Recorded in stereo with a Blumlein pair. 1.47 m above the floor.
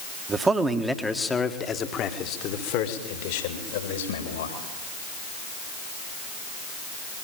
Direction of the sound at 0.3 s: 20° right.